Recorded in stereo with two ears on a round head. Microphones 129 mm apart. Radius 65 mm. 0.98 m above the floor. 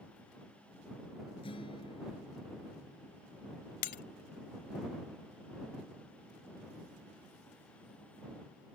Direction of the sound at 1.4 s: 40° left (ahead or behind).